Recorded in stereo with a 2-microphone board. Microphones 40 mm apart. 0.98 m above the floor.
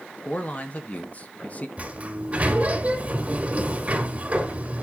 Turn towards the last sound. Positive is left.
turn(degrees=-35)  # may be behind; listen again after turning